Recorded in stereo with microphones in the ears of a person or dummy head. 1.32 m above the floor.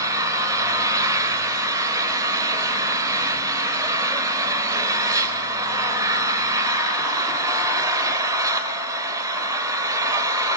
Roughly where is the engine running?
Right.